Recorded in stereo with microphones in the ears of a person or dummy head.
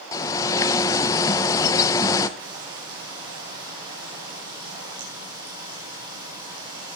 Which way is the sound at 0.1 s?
20° left (ahead or behind).